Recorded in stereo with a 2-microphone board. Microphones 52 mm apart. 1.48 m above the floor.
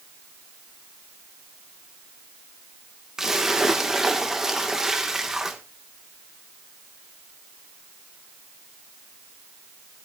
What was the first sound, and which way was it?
A splash, 10° right (ahead or behind).